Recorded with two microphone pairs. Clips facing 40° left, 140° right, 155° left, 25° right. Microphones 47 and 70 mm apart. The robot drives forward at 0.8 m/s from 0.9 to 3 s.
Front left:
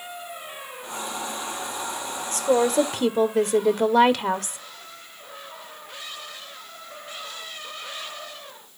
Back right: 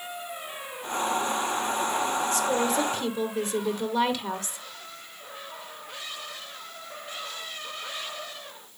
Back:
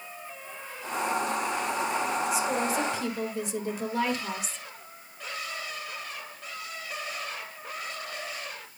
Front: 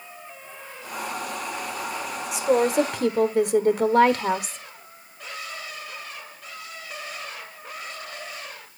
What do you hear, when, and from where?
2.3 s a woman speaking: 5° left, 1.6 m; by 4.6 s 10° left, 1.1 m